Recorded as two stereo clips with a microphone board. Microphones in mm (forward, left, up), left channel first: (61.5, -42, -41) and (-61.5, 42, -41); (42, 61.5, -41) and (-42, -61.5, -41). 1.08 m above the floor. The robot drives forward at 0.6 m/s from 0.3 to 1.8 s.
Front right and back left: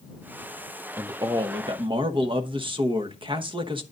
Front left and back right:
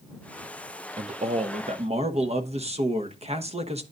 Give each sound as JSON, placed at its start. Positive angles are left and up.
{"t": 1.0, "sound": "a man speaking", "azimuth_deg": -145, "distance_m": 0.6}